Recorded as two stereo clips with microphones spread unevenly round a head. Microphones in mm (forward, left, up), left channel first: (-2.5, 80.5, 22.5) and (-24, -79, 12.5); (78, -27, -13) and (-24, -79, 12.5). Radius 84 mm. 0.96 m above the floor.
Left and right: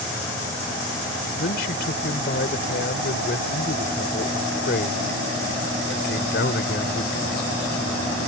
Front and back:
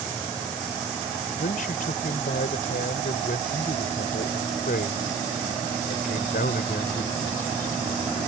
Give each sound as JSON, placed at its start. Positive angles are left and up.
{"t": 1.4, "sound": "a man speaking", "azimuth_deg": 50}